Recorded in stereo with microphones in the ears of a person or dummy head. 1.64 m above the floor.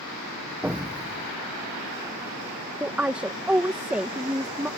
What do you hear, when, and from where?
0.6 s an explosion: 5° right (ahead or behind)
2.8 s a woman speaking: 10° right (ahead or behind)